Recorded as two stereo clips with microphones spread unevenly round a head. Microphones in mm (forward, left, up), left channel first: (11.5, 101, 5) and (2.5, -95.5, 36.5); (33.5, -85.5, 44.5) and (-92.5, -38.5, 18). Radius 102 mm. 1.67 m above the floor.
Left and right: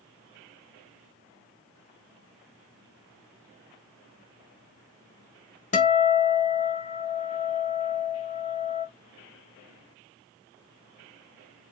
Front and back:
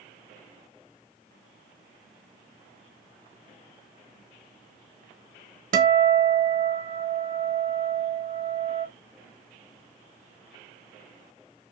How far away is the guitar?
About 0.6 m.